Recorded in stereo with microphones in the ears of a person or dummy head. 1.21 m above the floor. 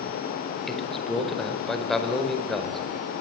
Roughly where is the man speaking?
Centre.